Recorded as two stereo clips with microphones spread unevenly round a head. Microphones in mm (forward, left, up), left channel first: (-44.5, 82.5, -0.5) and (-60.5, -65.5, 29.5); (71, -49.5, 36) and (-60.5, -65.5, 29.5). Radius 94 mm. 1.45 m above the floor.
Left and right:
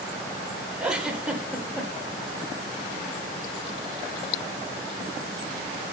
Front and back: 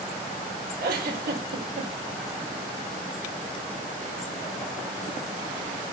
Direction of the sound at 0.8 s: Straight behind.